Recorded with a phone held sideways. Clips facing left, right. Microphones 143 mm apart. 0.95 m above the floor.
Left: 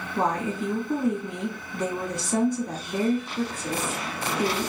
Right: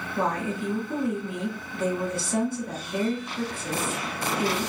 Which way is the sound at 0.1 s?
40° left (ahead or behind).